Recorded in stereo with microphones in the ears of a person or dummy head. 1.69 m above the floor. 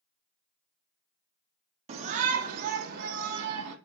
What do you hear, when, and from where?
1.9 s a shout: 35° right (ahead or behind), 1.3 m; by 3.8 s 60° right (ahead or behind), 2.0 m